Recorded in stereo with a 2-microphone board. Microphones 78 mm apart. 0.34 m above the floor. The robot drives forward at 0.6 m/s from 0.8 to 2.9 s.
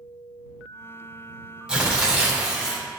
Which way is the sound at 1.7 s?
15° right (ahead or behind).